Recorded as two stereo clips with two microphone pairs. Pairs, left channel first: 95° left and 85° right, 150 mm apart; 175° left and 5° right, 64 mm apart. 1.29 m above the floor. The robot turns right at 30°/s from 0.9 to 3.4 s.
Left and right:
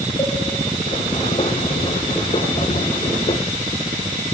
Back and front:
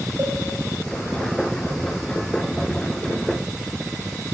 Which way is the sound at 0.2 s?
40° left.